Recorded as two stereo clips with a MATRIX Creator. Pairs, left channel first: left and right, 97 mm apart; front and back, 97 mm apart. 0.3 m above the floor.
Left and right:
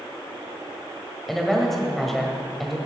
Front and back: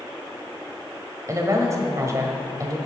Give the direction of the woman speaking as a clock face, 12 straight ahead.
6 o'clock.